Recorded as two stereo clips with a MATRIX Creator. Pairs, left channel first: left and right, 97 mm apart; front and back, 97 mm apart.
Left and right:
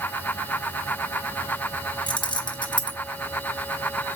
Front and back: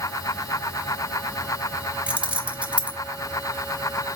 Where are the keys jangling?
105° left, 1.4 m.